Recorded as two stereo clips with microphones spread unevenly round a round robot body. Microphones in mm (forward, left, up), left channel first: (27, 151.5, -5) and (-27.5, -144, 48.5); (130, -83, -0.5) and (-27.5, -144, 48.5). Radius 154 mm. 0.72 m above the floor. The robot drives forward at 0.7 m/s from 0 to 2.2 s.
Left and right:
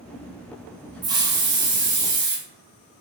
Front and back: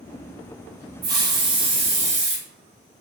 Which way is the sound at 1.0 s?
175° left.